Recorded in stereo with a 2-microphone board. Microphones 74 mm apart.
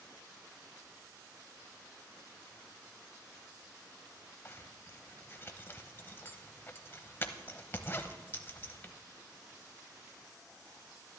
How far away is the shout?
I don't hear a shout.